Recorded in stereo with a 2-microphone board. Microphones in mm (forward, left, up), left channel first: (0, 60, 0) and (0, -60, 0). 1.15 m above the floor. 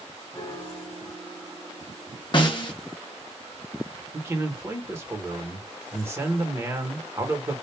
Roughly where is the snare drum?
Left.